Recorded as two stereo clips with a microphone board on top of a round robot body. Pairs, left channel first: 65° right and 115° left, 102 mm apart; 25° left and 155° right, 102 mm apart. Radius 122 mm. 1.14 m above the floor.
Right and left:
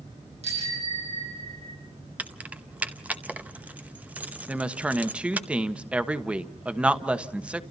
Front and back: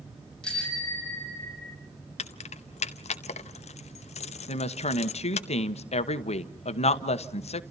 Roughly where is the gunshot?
No gunshot in this recording.